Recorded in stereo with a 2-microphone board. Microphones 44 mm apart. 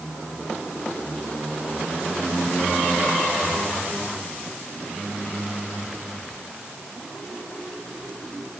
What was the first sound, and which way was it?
Only background noise.